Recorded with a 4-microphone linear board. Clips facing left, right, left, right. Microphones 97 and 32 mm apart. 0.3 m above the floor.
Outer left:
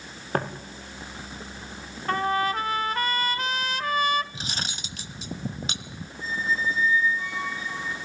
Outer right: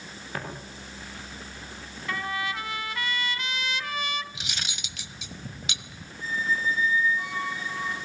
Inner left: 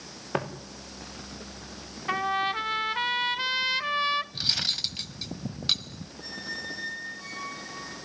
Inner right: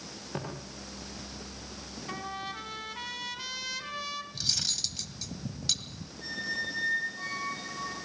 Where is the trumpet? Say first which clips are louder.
Outer left 7 dB, inner left 11 dB; 45° left (ahead or behind), 0.9 m.